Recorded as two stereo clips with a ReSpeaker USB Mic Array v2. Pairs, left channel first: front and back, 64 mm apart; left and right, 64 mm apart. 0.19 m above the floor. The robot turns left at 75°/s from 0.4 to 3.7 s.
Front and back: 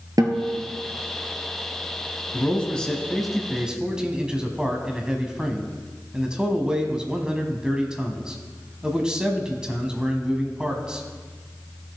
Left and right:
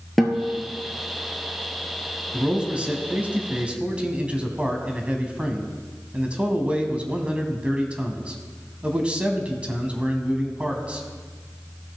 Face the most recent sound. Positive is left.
turn(degrees=-125)